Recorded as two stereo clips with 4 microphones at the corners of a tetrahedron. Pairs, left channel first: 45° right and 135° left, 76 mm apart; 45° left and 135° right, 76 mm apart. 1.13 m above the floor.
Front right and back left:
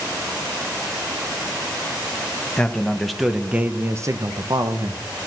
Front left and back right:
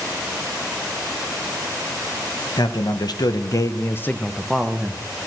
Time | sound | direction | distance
2.6 | a man speaking | 30° left | 1.4 m